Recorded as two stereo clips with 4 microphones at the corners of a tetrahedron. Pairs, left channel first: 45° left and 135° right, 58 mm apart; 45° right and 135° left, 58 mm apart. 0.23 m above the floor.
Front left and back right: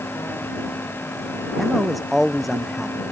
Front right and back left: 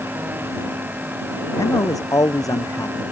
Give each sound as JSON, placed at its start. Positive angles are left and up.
{"t": 1.6, "sound": "a man speaking", "azimuth_deg": -45}